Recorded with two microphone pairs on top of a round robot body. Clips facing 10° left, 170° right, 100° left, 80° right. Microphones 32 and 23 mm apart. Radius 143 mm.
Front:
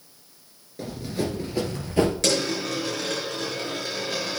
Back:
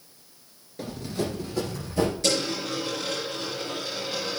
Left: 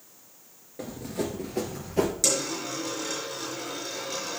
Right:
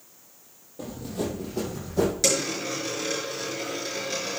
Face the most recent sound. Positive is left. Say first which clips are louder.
# front 2 dB, right 2 dB
turn(degrees=-5)